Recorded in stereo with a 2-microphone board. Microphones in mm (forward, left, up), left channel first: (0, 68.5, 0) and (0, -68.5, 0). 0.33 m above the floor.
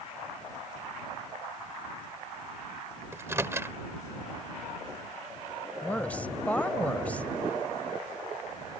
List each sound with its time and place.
3.1 s a microwave: 20° right (ahead or behind)
5.8 s a woman speaking: 10° left (ahead or behind)